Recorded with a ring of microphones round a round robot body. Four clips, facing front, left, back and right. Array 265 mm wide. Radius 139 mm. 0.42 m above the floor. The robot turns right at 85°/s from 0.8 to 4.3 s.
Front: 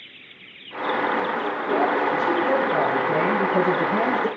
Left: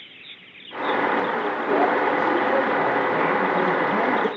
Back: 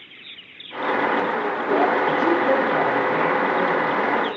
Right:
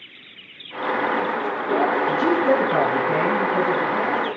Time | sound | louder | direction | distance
2.1 | a man speaking | right 2 dB, back 2 dB | 135° right | 7 m